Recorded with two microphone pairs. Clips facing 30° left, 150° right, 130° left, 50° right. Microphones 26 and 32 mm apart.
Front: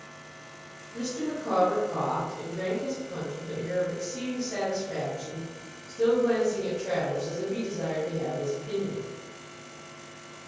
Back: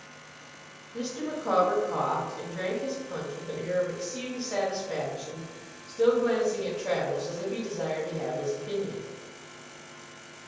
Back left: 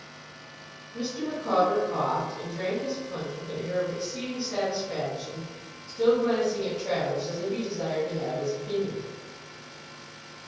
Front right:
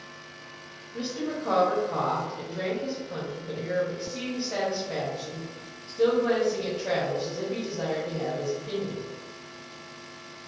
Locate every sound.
0.9 s a woman speaking: 100° right, 1.2 m